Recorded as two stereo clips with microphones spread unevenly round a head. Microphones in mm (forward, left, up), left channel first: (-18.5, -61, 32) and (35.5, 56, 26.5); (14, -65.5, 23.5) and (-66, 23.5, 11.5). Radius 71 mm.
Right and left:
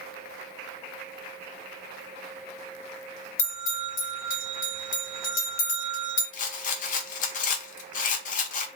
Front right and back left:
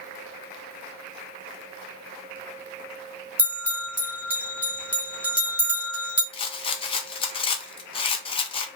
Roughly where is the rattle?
Right.